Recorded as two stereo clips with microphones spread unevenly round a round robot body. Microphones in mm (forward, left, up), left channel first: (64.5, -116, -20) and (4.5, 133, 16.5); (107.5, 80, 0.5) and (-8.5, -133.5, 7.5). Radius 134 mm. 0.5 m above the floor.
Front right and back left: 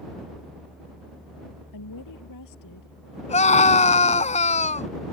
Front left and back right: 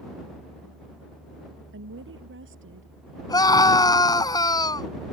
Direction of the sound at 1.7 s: 80° right.